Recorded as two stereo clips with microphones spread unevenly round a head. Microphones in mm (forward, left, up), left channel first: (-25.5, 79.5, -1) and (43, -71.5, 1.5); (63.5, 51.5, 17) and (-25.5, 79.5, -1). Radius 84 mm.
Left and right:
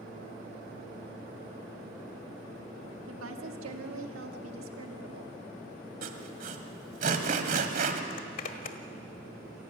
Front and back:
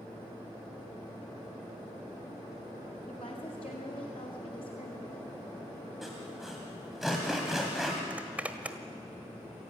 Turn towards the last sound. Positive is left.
turn(degrees=80)